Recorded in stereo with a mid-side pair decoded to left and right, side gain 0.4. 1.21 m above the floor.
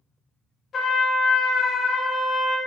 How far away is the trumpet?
About 0.5 m.